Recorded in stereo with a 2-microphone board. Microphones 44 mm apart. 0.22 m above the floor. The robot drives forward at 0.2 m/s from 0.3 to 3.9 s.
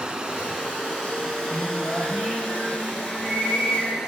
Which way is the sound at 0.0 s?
20° right (ahead or behind).